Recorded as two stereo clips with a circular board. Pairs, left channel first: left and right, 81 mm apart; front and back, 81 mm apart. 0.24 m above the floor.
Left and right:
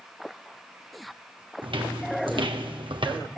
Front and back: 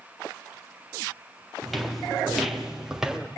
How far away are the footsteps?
About 3.5 m.